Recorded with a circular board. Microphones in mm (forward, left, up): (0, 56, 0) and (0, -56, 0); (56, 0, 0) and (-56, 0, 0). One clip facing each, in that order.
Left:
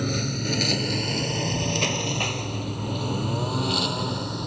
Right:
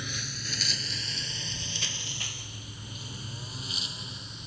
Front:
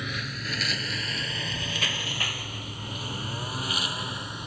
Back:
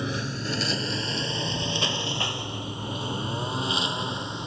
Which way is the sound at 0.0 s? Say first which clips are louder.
Left 14 dB, back 5 dB; 120° left.